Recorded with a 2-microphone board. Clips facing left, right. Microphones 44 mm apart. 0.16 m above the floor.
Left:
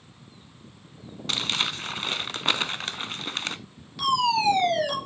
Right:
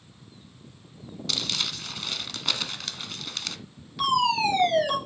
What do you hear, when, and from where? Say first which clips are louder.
1.3 s crumpling: left 3 dB; 35° left (ahead or behind), 0.5 m
4.0 s a fire alarm: even; 5° right (ahead or behind), 5.5 m